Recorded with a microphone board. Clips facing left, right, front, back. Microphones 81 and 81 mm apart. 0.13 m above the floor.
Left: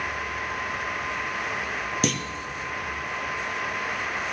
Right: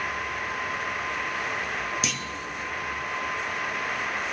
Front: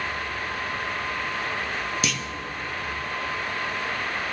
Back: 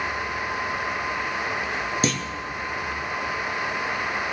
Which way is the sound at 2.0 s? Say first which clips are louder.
Left 6 dB, back 4 dB; 125° left.